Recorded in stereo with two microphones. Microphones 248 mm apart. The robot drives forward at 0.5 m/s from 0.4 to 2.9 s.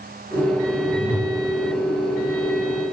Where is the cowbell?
I don't hear a cowbell.